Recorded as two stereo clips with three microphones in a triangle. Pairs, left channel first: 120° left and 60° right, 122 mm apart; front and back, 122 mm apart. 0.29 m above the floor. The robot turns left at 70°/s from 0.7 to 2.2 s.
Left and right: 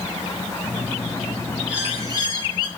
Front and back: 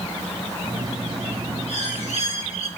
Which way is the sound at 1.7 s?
25° left.